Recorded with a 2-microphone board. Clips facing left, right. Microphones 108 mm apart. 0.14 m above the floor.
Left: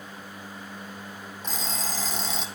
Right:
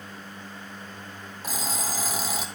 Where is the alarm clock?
10° right (ahead or behind), 3 m.